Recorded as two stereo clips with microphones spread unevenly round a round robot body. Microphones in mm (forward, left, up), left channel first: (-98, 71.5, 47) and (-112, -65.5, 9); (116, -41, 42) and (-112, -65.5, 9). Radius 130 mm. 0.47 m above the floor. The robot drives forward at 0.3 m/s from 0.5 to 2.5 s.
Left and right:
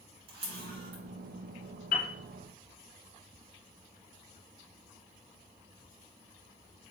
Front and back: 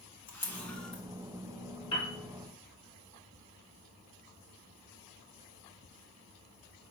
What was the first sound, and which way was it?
A camera shutter, 75° right.